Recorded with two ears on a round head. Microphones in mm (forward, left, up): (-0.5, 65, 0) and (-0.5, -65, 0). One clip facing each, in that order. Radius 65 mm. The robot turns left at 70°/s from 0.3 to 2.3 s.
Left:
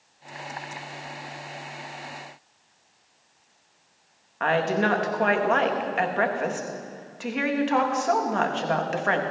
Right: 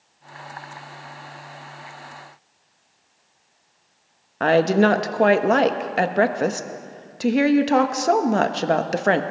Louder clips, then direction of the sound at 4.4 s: Right 7 dB; 40° right (ahead or behind).